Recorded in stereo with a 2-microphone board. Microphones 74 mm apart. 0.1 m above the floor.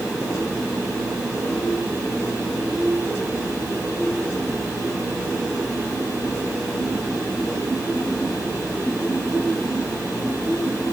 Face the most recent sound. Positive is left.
No sound to turn to.